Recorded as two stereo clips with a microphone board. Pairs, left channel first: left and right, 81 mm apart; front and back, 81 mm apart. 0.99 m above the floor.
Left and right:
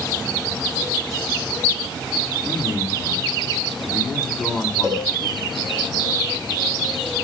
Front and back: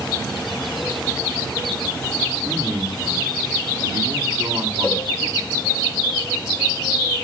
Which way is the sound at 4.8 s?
80° right.